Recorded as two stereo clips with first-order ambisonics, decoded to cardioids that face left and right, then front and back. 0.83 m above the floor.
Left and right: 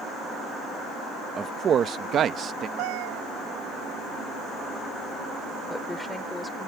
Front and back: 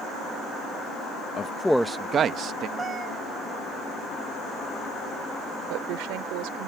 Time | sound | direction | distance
1.4 | a man speaking | 35° right | ?
2.8 | a cat meowing | 110° right | ?
5.7 | a woman speaking | 175° left | ?